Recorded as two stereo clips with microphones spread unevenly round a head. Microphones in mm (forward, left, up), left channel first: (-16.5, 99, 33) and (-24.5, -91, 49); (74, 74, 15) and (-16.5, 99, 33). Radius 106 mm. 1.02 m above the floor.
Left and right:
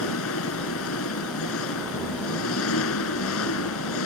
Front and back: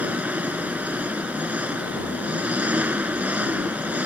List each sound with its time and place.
0.0 s an engine running: 90° left